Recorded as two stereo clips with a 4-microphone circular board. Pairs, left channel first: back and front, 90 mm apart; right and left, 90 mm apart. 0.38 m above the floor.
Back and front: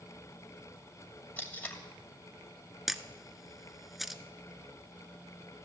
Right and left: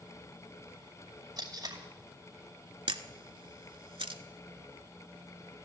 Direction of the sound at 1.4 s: 115° left.